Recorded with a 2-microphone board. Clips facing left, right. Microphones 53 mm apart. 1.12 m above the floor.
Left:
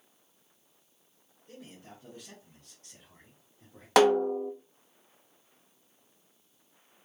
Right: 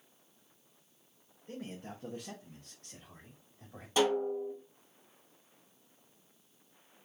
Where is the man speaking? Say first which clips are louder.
Right 5 dB; 40° right (ahead or behind), 0.9 m; by 3.9 s 65° right (ahead or behind), 1.9 m.